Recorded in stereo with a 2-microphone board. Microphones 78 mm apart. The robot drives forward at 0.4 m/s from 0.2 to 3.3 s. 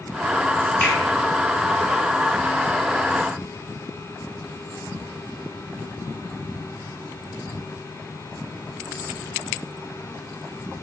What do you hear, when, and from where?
0.8 s a finger snap: 25° left (ahead or behind), 2 m